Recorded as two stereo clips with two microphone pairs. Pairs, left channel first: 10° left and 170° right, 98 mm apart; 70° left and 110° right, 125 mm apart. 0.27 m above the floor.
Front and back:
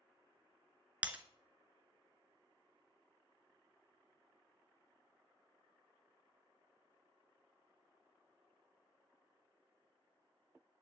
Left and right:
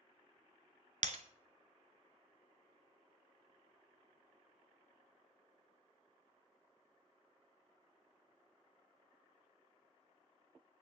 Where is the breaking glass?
95° right, 0.9 m.